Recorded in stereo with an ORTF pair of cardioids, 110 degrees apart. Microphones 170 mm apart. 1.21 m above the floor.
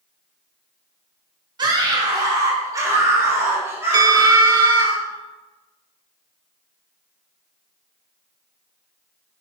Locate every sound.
1.6 s a scream: 25° right, 2 m; by 4.9 s 15° right, 4 m
3.9 s a bell: 25° right, 0.5 m